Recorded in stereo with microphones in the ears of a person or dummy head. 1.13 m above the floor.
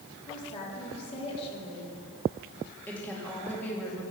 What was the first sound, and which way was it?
A woman speaking, 30° left (ahead or behind).